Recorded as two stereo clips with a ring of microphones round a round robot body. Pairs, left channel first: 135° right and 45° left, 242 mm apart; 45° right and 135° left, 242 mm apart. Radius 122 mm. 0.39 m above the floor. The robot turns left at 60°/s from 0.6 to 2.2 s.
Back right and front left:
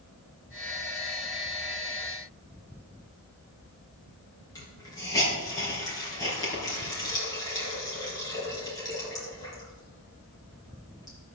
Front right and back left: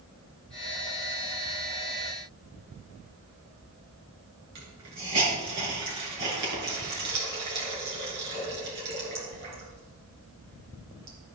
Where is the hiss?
150° left, 4 m.